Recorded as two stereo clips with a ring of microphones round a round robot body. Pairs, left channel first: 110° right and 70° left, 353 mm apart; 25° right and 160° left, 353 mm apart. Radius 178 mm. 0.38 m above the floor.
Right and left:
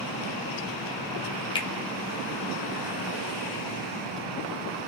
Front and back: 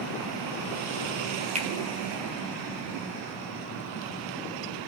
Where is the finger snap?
165° right, 0.6 m.